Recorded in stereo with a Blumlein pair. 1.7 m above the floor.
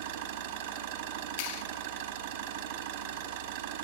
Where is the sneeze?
I don't hear a sneeze.